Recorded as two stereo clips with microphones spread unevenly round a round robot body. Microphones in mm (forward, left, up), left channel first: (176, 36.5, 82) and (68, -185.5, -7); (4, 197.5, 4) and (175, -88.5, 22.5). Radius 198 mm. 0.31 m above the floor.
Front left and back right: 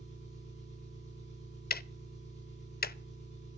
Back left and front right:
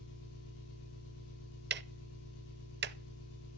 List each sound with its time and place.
0.0 s an engine running: 155° left, 7 m
1.7 s ticking: 5° right, 0.6 m